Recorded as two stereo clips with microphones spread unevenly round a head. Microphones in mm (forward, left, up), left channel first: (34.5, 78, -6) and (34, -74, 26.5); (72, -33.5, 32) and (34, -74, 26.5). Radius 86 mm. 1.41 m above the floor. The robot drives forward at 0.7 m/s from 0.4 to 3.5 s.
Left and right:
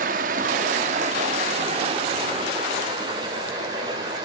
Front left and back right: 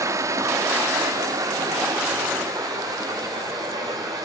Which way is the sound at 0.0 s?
115° right.